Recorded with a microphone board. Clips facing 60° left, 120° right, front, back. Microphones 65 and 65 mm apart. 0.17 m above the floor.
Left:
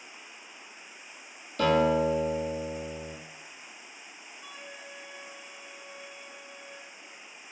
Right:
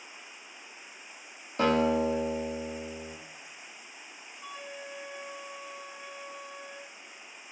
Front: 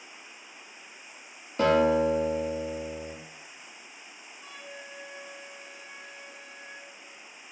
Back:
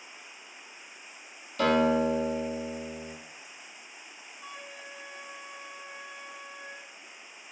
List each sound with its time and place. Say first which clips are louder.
1.6 s a guitar: left 2 dB, front 2 dB; 60° right, 1.3 m
4.4 s a flute: right 4 dB, even; 130° right, 1.7 m